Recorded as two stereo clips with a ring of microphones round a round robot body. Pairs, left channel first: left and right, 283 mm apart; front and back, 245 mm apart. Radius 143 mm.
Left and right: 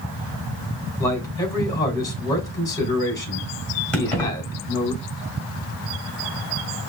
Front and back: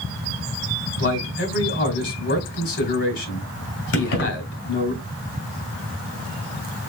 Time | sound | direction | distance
1.0 | a man speaking | 15° left | 1.9 m
3.9 | keys jangling | 5° left | 2 m